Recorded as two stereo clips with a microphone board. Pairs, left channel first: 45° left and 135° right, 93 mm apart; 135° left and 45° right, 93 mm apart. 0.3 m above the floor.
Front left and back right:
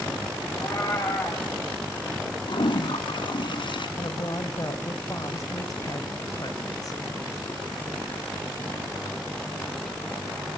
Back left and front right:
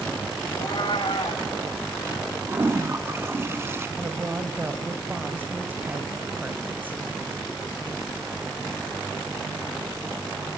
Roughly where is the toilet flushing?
Ahead.